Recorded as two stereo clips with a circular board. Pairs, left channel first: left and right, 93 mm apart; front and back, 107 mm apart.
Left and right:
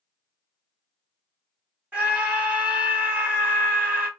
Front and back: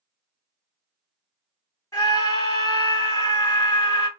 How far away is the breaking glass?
No breaking glass in this recording.